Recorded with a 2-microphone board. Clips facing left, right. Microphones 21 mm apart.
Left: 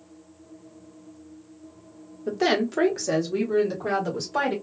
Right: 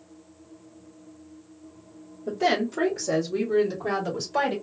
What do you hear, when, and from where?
2.3 s a woman speaking: 40° left (ahead or behind), 1.3 m; by 4.5 s centre (ahead or behind), 1.8 m